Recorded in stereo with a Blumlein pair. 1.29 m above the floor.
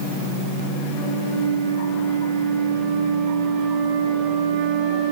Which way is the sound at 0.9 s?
35° right.